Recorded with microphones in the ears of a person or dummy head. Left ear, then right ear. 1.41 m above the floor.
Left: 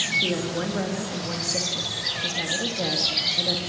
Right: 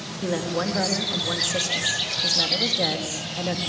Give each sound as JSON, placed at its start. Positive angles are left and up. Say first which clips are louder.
{"t": 0.2, "sound": "a woman speaking", "louder": "even", "side_deg": -25, "distance_m": 2.0}